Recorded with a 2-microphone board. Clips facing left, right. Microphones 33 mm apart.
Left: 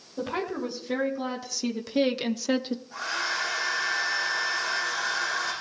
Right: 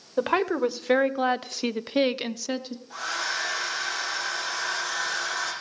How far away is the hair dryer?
About 7.5 m.